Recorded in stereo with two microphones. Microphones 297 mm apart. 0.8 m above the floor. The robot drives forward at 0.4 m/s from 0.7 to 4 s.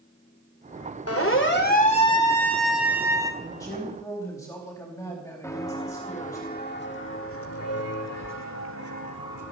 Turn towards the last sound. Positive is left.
turn(degrees=70)  # may be behind; listen again after turning